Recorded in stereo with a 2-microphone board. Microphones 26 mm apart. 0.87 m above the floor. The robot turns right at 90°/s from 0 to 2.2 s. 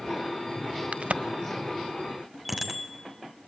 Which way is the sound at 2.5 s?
5° right (ahead or behind).